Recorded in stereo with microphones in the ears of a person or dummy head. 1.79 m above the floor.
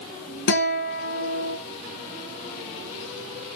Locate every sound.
0.5 s a guitar: 65° left (ahead or behind), 1.1 m